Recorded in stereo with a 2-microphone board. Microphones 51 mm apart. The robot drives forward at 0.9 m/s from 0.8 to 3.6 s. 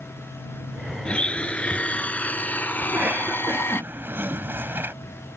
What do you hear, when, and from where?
1.1 s a blender: 20° left (ahead or behind); by 3.8 s 50° left (ahead or behind)
2.8 s a cough: 35° right (ahead or behind); by 5.0 s 45° right (ahead or behind)